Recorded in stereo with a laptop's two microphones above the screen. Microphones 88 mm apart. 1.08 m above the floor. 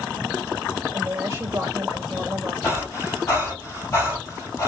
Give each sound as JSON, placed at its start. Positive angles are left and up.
{"t": 0.9, "sound": "a woman speaking", "side_deg": -30, "distance_m": 2.5}
{"t": 2.6, "sound": "breathing", "side_deg": 30, "distance_m": 3.0}